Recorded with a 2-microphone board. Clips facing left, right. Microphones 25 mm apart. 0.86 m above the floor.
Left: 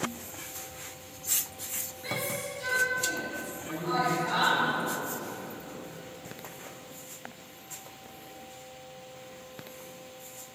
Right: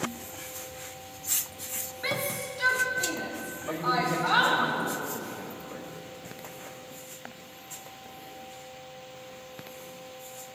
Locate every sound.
2.0 s a shout: 50° right (ahead or behind), 2 m; by 4.7 s 60° right (ahead or behind), 4 m
3.7 s a man speaking: 70° right (ahead or behind), 4.5 m